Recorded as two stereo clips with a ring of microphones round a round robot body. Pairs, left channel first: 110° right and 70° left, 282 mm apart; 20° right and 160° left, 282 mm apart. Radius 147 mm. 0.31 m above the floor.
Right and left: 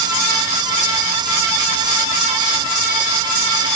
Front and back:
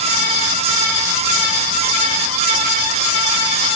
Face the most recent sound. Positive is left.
No sound to turn to.